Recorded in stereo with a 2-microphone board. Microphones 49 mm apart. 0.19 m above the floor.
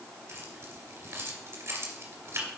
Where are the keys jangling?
60° right (ahead or behind), 2.5 m.